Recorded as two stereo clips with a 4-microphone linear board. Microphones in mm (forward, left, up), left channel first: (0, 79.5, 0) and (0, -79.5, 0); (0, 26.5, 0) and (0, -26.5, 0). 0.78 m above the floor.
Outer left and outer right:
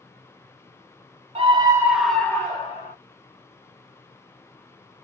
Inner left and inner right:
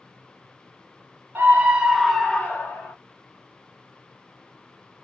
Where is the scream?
35° right (ahead or behind), 0.9 m; by 2.9 s 40° left (ahead or behind), 1.1 m.